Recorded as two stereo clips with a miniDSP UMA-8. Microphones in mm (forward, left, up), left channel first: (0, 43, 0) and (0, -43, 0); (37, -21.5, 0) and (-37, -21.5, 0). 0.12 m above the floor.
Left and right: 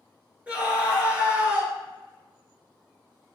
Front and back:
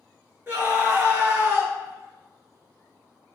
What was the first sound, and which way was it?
A scream, 150° right.